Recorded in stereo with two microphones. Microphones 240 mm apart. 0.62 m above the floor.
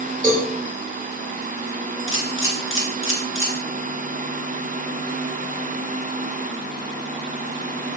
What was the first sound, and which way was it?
A cowbell, 5° left (ahead or behind).